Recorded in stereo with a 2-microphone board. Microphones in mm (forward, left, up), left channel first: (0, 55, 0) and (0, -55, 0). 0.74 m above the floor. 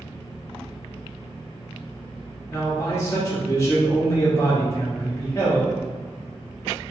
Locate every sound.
2.5 s a man speaking: 25° left (ahead or behind), 1.7 m